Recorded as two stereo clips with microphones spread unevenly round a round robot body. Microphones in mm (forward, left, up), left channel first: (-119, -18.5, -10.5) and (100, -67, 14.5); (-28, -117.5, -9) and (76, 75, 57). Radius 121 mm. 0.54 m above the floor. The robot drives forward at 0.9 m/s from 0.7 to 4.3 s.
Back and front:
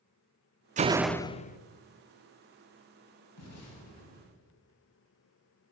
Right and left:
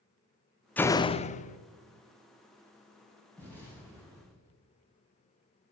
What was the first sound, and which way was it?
A door slam, 60° right.